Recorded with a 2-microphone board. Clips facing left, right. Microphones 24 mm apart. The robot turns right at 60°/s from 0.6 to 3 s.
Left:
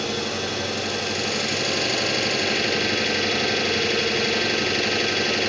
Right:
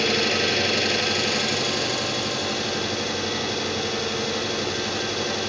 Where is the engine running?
50° right, 2.5 m; by 5.5 s 90° left, 2.5 m.